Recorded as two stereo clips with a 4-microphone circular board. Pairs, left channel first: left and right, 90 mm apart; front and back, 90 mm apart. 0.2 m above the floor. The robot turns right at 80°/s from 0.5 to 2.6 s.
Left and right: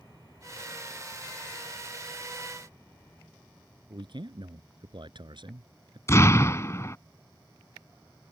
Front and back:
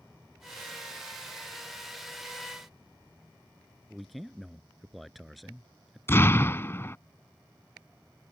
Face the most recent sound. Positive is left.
turn(degrees=50)